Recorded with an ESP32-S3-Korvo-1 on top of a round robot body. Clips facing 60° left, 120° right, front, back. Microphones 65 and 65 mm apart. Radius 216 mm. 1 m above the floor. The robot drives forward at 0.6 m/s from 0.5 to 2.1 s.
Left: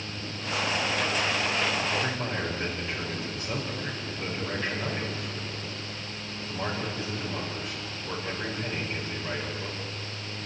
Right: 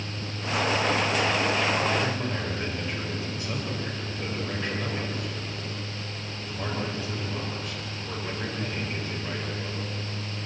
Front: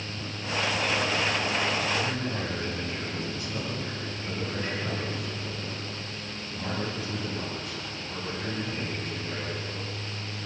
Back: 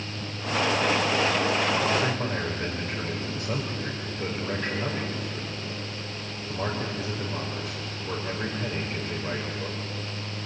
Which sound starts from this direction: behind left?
A man speaking, at 1.9 s.